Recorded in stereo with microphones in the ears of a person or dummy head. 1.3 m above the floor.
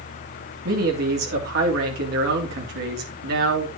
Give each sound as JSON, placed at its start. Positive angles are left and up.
{"t": 0.7, "sound": "a man speaking", "side_deg": -50, "distance_m": 3.0}